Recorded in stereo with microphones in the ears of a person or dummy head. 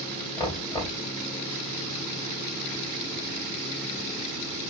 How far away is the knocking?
About 1.9 m.